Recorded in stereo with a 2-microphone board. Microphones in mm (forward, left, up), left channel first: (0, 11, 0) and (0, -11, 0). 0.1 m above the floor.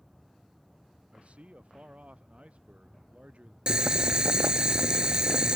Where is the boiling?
40° right (ahead or behind).